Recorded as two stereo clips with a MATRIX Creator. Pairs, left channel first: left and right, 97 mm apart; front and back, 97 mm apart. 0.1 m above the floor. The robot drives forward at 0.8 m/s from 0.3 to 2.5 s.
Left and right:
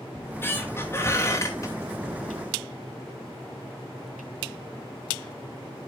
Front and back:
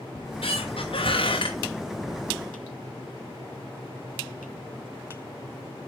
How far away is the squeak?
About 2.5 m.